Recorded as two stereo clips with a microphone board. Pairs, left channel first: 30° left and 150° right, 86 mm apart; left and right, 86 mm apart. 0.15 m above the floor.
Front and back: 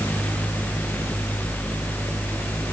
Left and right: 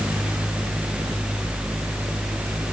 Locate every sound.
Only background noise.